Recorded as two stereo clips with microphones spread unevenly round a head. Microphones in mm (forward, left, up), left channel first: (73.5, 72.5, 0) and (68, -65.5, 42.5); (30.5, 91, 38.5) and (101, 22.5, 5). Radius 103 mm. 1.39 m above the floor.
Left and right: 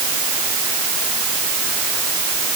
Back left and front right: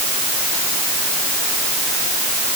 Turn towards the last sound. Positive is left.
No sound to turn to.